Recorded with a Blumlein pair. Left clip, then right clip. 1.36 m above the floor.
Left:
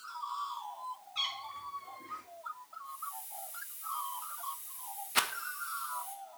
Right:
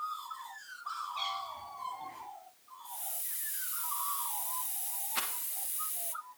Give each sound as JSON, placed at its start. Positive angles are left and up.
{"t": 1.1, "sound": "a cat meowing", "azimuth_deg": 55, "distance_m": 4.5}
{"t": 2.9, "sound": "a hiss", "azimuth_deg": -30, "distance_m": 0.6}
{"t": 5.2, "sound": "a rattle", "azimuth_deg": 70, "distance_m": 0.7}